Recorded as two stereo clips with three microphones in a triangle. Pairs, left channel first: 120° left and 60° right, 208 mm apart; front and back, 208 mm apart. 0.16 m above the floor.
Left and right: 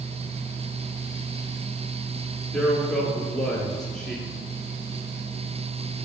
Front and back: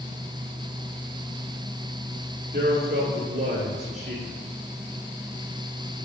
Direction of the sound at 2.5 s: 150° right.